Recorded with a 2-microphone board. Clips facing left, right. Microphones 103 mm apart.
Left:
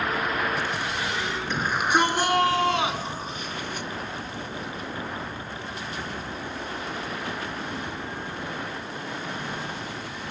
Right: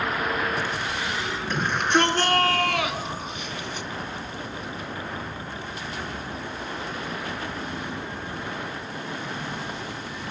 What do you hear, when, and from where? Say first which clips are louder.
1.5 s a shout: right 1 dB; centre (ahead or behind), 4 m; by 3.9 s 50° left (ahead or behind), 3 m